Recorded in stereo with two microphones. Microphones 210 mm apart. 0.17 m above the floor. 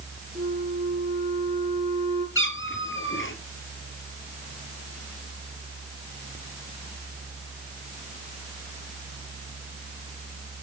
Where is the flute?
25° right (ahead or behind), 4.5 m.